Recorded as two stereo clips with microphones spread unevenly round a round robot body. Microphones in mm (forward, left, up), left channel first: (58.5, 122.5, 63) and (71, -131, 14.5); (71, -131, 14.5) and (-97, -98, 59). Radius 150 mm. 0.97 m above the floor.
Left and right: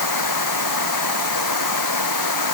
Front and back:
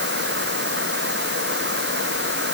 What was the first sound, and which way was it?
Running water, 115° left.